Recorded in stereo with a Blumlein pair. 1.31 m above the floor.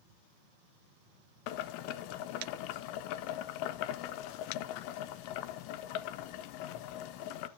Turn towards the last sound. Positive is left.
turn(degrees=45)